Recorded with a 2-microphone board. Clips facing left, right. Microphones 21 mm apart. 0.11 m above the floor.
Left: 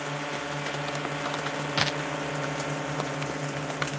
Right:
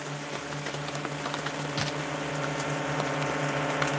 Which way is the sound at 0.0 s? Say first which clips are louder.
Left 3 dB; 40° left (ahead or behind).